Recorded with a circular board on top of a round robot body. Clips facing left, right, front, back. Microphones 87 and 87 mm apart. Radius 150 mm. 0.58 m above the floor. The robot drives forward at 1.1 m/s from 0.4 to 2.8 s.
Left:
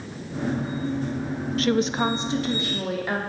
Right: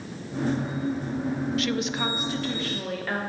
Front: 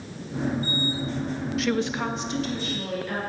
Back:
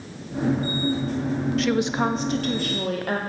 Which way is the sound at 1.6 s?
85° left.